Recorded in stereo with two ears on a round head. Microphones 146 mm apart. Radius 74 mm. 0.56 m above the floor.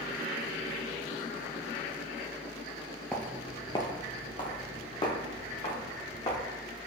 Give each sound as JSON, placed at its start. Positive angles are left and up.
{"t": 3.1, "sound": "footsteps", "side_deg": 5, "distance_m": 0.5}